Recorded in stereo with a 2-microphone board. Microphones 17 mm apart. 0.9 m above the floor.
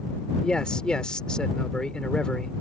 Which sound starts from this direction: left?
A man speaking, at 0.4 s.